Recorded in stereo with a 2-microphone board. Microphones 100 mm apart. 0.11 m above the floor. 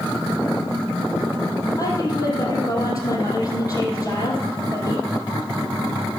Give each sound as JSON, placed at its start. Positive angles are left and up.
{"t": 1.8, "sound": "a woman speaking", "side_deg": 35, "distance_m": 4.0}